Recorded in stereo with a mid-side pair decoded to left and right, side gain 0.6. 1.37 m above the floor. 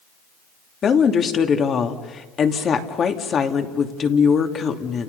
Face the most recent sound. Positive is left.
turn(degrees=40)